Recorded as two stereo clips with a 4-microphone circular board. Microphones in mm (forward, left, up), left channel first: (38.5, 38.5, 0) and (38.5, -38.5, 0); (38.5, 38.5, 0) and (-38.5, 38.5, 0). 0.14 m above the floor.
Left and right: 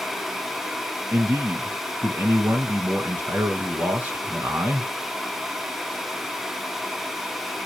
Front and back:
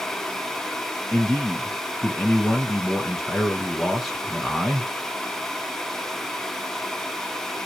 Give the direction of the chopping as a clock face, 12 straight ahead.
I don't hear chopping.